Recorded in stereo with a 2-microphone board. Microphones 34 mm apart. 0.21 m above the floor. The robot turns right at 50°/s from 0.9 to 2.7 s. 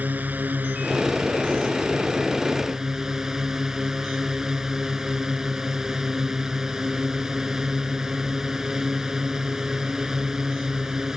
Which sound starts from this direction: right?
A drone, at 0.0 s.